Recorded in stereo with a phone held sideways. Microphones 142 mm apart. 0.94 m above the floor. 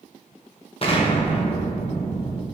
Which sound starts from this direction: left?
An explosion, at 0.8 s.